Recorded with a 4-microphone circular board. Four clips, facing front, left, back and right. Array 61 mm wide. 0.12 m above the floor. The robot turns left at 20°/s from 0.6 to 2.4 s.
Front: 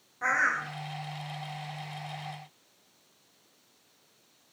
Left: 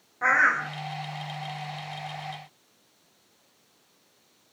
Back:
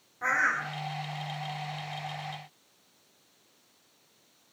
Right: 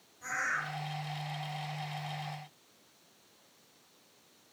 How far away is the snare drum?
I don't hear a snare drum.